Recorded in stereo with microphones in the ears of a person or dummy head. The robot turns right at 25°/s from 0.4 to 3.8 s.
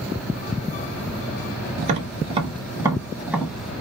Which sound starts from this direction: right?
Tapping, at 1.8 s.